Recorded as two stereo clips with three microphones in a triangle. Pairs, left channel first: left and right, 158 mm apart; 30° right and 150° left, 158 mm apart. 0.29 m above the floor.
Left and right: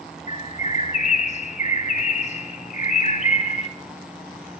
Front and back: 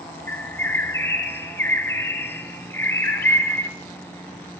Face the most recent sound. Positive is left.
turn(degrees=45)